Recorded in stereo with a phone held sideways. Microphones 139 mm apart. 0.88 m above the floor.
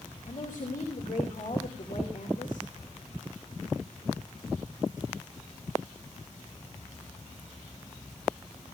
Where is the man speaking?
80° left, 2.5 m.